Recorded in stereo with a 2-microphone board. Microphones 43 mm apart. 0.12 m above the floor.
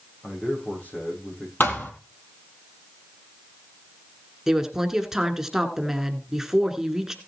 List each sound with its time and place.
0.2 s a man speaking: 40° left (ahead or behind), 6.5 m
1.6 s a thud: 55° left (ahead or behind), 1.8 m
4.5 s a woman speaking: 10° right (ahead or behind), 1.2 m